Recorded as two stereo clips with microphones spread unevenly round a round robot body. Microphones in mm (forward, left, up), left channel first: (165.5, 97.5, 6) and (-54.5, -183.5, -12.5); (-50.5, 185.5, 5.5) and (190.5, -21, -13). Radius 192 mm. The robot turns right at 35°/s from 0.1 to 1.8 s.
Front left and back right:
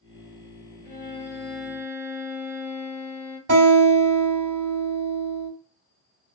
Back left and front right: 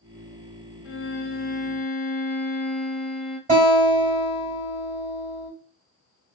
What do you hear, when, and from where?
0.8 s a violin: 115° left, 0.9 m; by 3.4 s 150° left, 0.9 m
3.5 s a guitar: 100° right, 1.5 m